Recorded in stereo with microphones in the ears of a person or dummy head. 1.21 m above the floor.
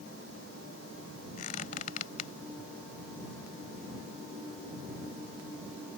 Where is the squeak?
45° left (ahead or behind).